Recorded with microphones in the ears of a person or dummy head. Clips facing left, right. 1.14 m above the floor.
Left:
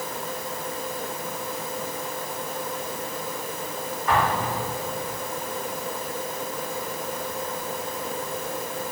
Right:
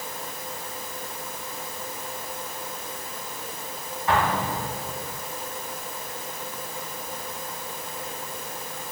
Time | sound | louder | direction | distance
4.1 | an explosion | even | 25° right (ahead or behind) | 4 m